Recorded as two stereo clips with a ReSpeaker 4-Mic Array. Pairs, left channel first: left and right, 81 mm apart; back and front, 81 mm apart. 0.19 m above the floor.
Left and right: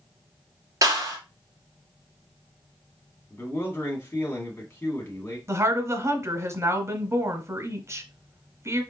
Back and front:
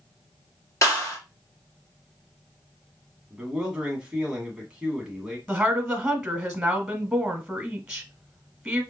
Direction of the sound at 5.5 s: 75° right.